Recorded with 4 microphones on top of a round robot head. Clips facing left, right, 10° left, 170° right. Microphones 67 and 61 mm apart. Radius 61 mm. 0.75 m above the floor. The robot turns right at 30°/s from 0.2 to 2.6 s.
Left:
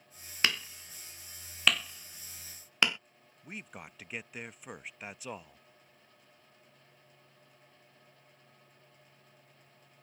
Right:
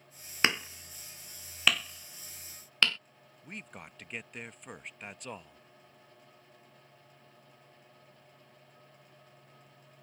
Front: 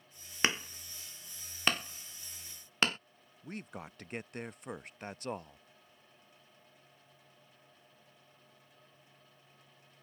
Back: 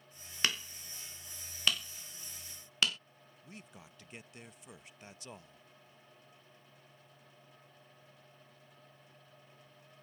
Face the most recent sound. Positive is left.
turn(degrees=5)